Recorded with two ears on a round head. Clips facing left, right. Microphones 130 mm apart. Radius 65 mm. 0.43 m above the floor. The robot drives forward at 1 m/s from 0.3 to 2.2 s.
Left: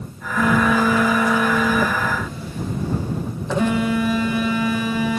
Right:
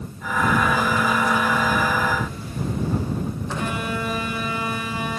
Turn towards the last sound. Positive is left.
turn(degrees=60)  # may be behind; listen again after turning